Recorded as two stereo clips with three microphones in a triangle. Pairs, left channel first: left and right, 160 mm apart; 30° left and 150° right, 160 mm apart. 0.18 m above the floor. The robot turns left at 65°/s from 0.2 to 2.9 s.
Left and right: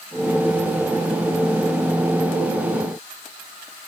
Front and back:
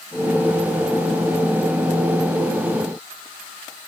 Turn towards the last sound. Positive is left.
No sound to turn to.